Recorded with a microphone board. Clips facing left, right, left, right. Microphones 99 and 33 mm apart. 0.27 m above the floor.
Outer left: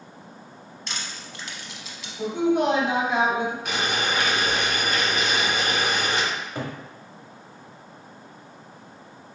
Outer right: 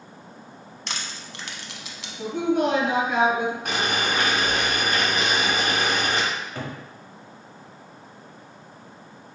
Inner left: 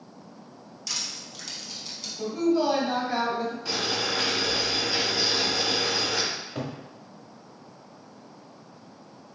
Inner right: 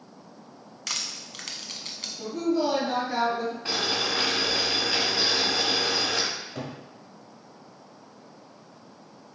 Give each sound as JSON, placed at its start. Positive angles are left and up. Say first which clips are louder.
{"t": 0.9, "sound": "crushing", "louder": "outer right 1 dB, inner right 1 dB", "side_deg": -70, "distance_m": 0.6}
{"t": 2.2, "sound": "a woman speaking", "louder": "outer left 1 dB, inner left 2 dB", "side_deg": 25, "distance_m": 1.5}
{"t": 3.6, "sound": "boiling", "louder": "outer right 1 dB, inner right 2 dB", "side_deg": -50, "distance_m": 1.5}
{"t": 6.3, "sound": "a cupboard door", "louder": "outer left 1 dB, inner left 2 dB", "side_deg": 20, "distance_m": 1.1}